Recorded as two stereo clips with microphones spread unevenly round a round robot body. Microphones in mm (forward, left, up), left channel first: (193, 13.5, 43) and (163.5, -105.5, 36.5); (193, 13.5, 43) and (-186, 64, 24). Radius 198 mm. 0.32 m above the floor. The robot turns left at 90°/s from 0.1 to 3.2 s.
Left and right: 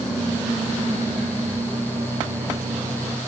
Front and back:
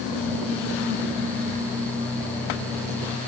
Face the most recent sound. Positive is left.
No sound to turn to.